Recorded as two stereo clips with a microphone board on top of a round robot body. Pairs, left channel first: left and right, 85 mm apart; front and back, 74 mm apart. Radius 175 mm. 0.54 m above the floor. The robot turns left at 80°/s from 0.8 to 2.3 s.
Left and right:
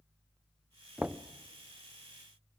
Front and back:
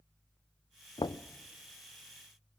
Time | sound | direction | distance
1.0 | knocking | 10° right | 0.9 m